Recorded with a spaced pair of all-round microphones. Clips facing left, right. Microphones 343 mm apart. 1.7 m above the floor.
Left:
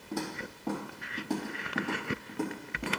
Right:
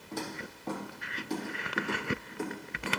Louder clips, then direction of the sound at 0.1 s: Left 3 dB; 55° left (ahead or behind).